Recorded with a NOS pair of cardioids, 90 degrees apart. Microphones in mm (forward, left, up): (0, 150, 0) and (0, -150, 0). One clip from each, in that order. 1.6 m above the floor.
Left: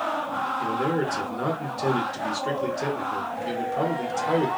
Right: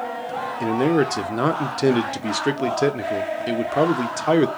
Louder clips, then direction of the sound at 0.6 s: Right 10 dB; 45° right.